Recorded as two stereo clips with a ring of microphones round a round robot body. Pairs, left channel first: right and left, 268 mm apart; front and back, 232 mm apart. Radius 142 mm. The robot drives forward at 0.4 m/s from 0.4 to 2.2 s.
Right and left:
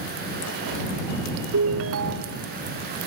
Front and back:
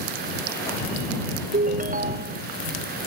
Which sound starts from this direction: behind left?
A ringtone, at 1.5 s.